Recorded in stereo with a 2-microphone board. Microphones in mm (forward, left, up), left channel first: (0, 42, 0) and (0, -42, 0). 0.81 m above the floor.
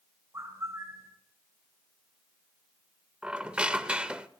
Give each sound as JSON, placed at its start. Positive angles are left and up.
{"t": 0.3, "sound": "a bird", "side_deg": -35, "distance_m": 2.5}
{"t": 3.2, "sound": "a squeak", "side_deg": -15, "distance_m": 0.6}